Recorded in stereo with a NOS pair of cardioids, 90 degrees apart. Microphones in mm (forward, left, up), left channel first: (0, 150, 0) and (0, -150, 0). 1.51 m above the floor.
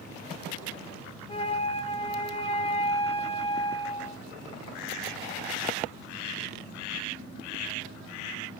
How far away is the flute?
About 2.5 m.